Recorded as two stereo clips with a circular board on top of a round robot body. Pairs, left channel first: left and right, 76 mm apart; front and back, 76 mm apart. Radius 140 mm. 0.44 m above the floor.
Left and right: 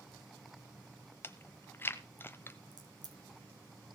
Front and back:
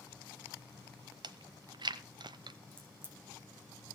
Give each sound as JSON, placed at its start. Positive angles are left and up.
{"t": 1.2, "sound": "chewing", "azimuth_deg": 155, "distance_m": 0.9}
{"t": 2.7, "sound": "a crack", "azimuth_deg": -115, "distance_m": 3.0}